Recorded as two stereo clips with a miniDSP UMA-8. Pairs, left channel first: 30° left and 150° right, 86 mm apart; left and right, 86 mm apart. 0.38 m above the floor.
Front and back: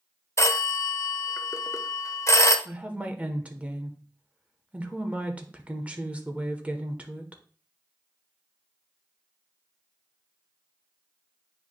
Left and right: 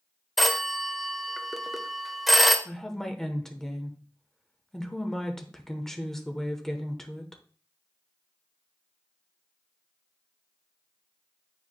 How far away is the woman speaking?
About 0.9 m.